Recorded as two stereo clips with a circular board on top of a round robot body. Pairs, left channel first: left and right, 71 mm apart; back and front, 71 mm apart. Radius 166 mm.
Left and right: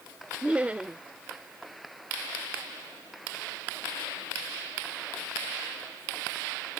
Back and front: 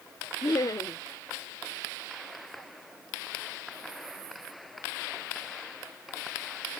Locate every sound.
0.4 s laughter: 160° right